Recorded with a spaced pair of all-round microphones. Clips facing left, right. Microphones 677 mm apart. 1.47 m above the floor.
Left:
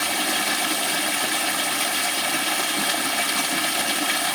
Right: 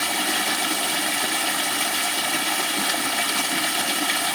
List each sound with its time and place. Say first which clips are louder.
0.0 s running water: even; centre (ahead or behind), 1.0 m